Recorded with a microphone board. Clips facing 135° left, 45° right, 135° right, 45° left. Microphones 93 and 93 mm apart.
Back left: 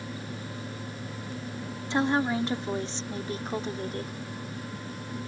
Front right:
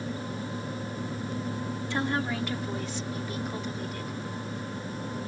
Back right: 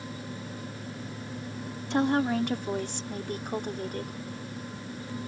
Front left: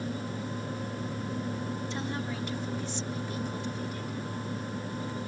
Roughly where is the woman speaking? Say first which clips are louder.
Back left 5 dB, back right 9 dB; behind right.